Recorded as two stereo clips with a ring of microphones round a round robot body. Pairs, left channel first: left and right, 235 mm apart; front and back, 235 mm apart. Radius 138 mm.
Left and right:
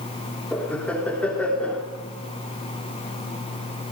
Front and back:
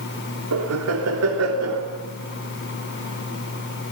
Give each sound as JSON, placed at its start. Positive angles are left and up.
{"t": 0.5, "sound": "laughter", "azimuth_deg": 175, "distance_m": 3.0}